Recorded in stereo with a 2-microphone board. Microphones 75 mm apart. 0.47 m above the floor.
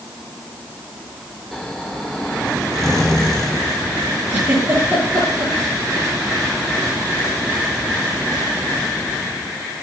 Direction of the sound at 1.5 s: 5° left (ahead or behind).